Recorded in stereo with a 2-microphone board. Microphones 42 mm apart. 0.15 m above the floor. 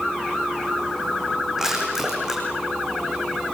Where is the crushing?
10° right (ahead or behind), 7 m.